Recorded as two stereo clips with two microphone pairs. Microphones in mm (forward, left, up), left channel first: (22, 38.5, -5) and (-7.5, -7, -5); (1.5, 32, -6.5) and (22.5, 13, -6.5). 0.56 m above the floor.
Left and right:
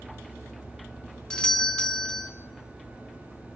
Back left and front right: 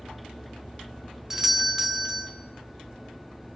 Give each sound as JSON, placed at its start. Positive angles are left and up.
{"t": 1.3, "sound": "a doorbell", "azimuth_deg": 10, "distance_m": 1.0}